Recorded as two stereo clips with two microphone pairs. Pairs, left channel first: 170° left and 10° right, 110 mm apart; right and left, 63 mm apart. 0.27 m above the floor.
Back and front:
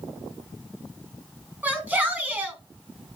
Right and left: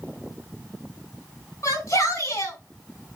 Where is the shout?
80° right, 2.5 m.